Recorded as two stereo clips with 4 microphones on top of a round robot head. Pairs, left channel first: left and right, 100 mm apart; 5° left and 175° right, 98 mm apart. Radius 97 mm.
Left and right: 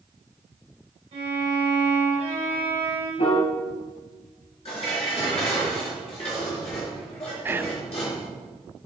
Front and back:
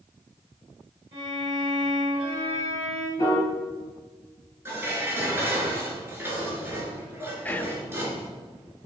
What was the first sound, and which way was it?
A violin, 130° right.